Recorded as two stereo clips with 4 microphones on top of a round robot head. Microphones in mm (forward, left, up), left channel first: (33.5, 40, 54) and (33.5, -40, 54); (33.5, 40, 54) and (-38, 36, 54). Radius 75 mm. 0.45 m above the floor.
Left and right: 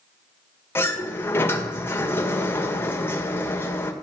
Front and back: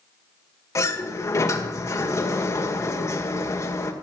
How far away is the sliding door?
About 1.9 m.